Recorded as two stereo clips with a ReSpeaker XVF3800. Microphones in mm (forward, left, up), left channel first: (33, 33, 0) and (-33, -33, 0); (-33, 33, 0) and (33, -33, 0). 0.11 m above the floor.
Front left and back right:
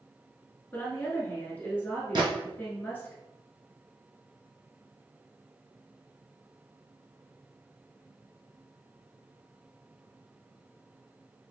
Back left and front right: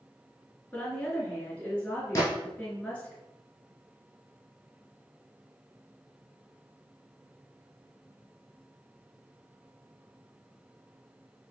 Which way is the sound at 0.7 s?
85° left.